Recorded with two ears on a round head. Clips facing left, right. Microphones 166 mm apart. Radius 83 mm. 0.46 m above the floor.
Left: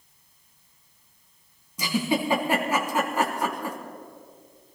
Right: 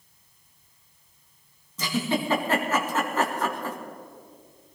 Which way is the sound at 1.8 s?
15° left (ahead or behind).